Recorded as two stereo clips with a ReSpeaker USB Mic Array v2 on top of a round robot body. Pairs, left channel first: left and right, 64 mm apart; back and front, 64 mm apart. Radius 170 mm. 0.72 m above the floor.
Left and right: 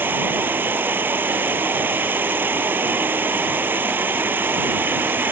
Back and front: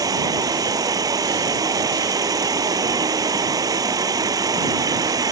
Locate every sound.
0.0 s an insect: 30° right